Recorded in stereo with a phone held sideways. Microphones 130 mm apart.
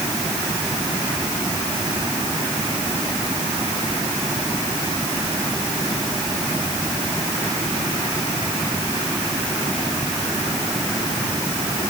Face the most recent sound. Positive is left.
No sound to turn to.